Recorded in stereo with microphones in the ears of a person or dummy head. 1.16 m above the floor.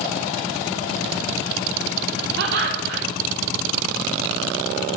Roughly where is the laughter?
Right.